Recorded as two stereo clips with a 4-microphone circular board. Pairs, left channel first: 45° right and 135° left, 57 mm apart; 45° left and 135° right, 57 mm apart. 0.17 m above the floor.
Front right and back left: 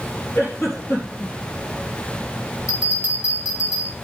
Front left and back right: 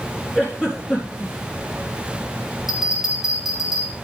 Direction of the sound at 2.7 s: 55° right.